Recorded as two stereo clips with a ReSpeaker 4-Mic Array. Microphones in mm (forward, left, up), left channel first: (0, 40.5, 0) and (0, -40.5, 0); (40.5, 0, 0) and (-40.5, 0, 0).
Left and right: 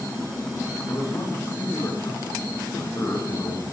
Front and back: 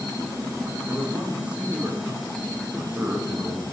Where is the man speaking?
120° left, 1.7 m.